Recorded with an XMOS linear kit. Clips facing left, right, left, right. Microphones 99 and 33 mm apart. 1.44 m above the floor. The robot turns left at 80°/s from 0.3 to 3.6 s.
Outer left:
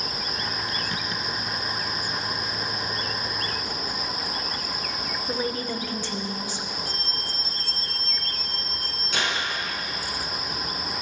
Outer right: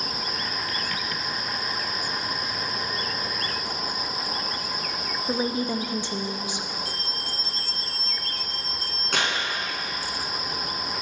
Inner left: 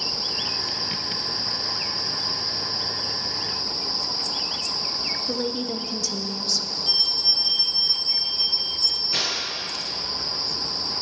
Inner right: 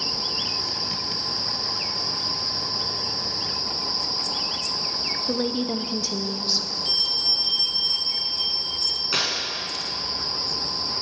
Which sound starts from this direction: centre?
A woman speaking, at 5.3 s.